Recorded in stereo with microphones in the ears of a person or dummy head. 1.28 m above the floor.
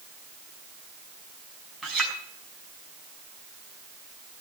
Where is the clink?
Centre (ahead or behind), 6 m.